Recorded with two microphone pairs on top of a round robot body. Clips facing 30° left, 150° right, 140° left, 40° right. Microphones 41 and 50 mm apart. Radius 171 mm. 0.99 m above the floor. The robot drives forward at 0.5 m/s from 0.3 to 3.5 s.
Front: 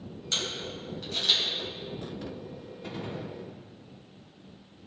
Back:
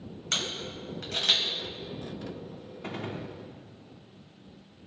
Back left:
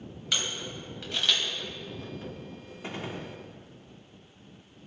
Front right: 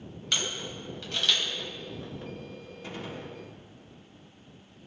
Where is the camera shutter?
135° right, 3 m; by 1.4 s 140° right, 3 m.